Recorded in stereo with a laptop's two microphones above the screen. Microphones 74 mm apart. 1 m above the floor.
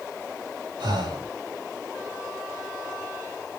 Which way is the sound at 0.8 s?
80° right.